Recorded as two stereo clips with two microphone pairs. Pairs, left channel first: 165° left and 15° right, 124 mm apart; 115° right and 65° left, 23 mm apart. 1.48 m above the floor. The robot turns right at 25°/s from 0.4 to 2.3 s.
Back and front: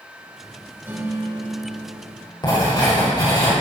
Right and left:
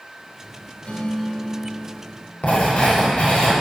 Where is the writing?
140° right, 4.5 m.